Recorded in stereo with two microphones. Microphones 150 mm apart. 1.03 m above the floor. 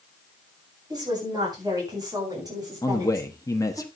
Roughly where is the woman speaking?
Right.